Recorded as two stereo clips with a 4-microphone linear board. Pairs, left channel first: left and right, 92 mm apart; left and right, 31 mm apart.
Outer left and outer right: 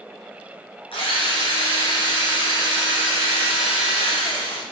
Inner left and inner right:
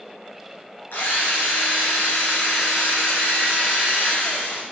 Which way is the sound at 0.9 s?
65° left (ahead or behind).